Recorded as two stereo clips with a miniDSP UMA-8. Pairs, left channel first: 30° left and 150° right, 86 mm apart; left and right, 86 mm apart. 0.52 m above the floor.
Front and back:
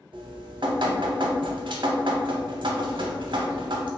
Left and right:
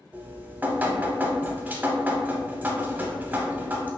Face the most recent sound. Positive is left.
turn(degrees=-160)